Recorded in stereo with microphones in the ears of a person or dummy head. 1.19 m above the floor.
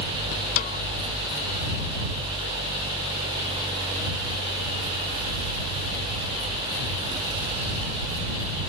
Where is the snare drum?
50° left (ahead or behind).